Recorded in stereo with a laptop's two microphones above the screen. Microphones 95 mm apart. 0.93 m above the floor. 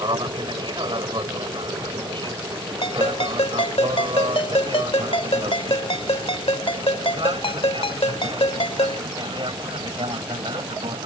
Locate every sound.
0.0 s an aircraft: 50° right (ahead or behind); by 11.1 s 60° right (ahead or behind)
2.8 s a ringtone: 75° left (ahead or behind)